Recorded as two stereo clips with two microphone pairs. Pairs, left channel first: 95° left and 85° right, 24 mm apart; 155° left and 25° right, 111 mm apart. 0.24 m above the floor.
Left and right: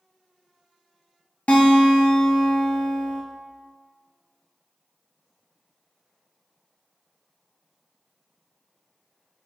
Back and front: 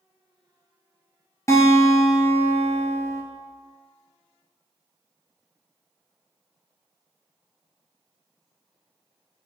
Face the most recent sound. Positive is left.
turn(degrees=95)